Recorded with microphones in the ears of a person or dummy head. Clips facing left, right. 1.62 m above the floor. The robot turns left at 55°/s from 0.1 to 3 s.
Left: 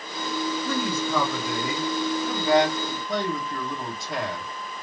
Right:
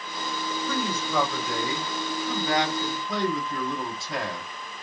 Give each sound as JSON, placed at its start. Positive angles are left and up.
{"t": 0.7, "sound": "a man speaking", "azimuth_deg": 135, "distance_m": 1.6}